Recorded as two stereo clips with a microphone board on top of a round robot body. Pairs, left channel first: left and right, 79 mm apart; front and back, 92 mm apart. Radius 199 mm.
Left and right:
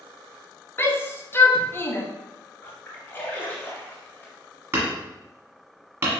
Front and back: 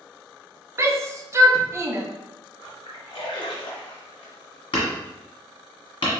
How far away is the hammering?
About 1.3 m.